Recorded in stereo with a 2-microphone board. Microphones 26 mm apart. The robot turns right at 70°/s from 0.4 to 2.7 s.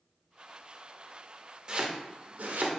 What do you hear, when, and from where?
1.7 s chopping: 30° right (ahead or behind), 0.6 m; by 2.7 s 80° right, 0.6 m